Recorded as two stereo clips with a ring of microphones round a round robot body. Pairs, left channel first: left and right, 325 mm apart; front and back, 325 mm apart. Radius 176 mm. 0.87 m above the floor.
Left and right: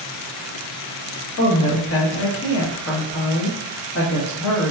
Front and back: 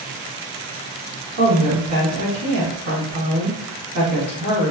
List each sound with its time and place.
1.4 s a woman speaking: 135° left, 1.1 m